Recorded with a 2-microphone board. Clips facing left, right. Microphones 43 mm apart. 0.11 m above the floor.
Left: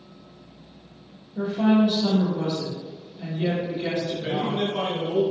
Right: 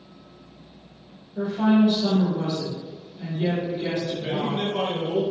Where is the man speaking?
20° left (ahead or behind), 1.5 m.